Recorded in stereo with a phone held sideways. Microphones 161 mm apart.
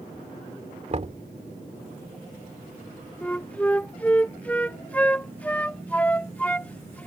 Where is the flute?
10° left (ahead or behind).